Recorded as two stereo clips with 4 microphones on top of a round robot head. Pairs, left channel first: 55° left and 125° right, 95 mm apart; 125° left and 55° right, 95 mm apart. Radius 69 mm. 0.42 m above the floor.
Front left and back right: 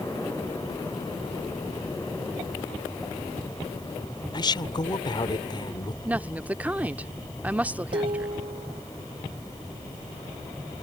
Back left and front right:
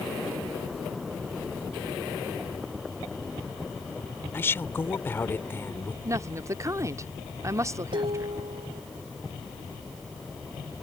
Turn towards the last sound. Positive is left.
turn(degrees=-95)